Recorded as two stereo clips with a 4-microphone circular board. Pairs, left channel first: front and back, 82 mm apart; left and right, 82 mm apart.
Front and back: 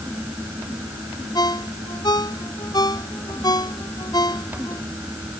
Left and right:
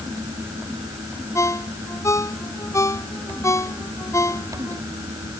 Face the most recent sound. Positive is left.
turn(degrees=35)